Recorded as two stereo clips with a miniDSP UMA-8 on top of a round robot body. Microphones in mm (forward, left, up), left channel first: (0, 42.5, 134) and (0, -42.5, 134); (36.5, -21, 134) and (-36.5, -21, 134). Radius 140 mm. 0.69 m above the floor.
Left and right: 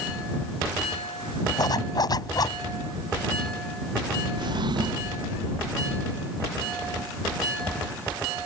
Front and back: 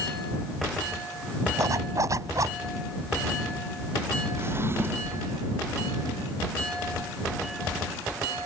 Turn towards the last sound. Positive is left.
turn(degrees=-125)